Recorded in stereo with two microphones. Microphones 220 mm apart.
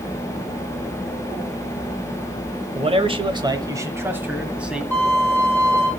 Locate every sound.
2.8 s a man speaking: 30° right (ahead or behind), 1.0 m; by 4.8 s 5° right (ahead or behind), 1.8 m
4.9 s a violin: 10° right (ahead or behind), 9.5 m